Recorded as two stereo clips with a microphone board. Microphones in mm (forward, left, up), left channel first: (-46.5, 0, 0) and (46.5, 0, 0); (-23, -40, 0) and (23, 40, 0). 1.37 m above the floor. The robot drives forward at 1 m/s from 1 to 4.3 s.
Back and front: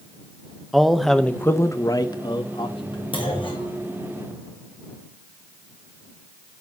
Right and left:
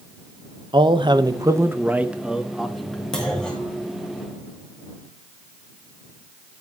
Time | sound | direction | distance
0.7 | a man speaking | 90° left | 1.1 m
3.1 | a clunk | 155° left | 5 m